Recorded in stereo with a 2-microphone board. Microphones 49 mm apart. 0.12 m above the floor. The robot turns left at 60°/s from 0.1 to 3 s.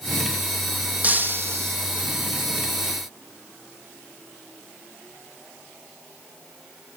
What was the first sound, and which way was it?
Breaking glass, 30° right.